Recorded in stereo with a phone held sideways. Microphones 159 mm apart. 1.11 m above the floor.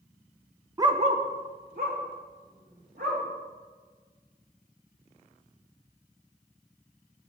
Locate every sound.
0.8 s a dog barking: 20° right (ahead or behind), 0.5 m; by 3.2 s 80° right, 3.5 m